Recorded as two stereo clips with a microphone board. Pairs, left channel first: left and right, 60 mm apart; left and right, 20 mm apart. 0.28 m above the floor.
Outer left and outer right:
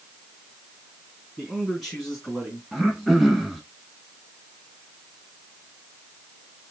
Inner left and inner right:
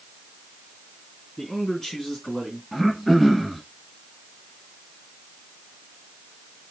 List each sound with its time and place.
1.4 s a man speaking: 5° right (ahead or behind), 2.5 m; by 2.6 s 5° left (ahead or behind), 3 m
2.7 s throat clearing: centre (ahead or behind), 1.1 m